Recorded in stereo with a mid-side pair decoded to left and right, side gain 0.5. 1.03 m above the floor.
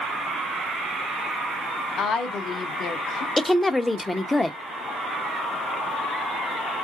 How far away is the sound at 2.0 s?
About 1.1 m.